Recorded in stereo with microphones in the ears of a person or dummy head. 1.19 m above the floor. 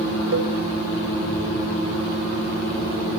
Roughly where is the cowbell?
Right.